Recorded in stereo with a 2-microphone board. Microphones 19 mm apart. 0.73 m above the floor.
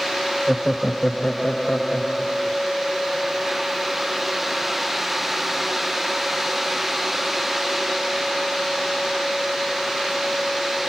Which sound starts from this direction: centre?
Laughter, at 0.5 s.